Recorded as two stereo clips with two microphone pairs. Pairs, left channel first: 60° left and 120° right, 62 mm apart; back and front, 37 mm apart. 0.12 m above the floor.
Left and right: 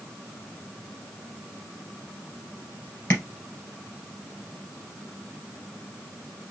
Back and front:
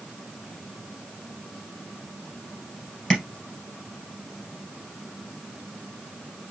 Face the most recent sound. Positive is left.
turn(degrees=115)